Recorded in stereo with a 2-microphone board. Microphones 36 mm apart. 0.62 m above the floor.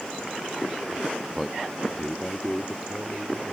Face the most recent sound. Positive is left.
turn(degrees=50)  # may be behind; listen again after turning